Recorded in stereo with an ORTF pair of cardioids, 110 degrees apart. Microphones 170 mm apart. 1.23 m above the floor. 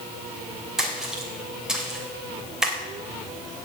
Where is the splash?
5° right, 3 m.